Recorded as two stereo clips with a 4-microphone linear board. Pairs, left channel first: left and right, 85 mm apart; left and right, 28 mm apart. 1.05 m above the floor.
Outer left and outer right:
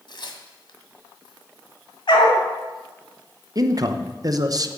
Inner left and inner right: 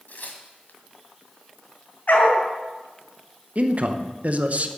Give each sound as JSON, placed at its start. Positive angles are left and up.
{"t": 0.1, "sound": "tearing paper", "side_deg": 65, "distance_m": 1.8}
{"t": 2.1, "sound": "a dog barking", "side_deg": 70, "distance_m": 3.0}
{"t": 3.5, "sound": "a man speaking", "side_deg": -45, "distance_m": 0.9}